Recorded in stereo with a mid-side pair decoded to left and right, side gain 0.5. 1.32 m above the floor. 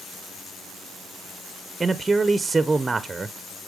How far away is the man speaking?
About 0.6 m.